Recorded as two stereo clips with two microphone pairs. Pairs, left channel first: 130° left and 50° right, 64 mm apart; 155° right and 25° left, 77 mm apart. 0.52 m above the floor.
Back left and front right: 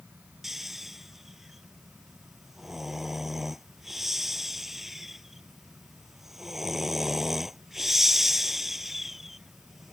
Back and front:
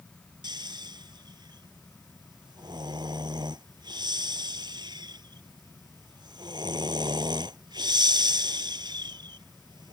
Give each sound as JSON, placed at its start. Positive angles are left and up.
{"t": 0.4, "sound": "snoring", "azimuth_deg": 35}